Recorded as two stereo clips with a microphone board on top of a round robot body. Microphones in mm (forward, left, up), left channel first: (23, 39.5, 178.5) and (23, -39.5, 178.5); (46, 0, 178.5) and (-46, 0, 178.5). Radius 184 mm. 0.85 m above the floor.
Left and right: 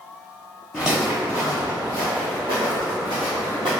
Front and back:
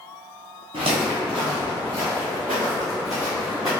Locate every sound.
0.7 s footsteps: straight behind, 1.1 m; by 3.7 s 90° right, 1.7 m